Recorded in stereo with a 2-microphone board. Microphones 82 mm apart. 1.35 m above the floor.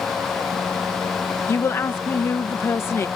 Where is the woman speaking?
30° left (ahead or behind).